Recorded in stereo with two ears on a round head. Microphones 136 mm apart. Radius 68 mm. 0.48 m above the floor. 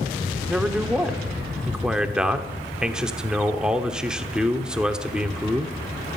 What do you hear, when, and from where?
0.5 s a man speaking: 5° right (ahead or behind), 1.0 m